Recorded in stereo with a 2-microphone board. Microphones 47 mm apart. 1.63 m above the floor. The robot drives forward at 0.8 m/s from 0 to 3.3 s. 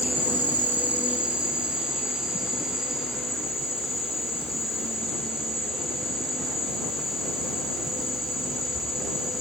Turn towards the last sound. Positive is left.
turn(degrees=-10)  # may be behind; listen again after turning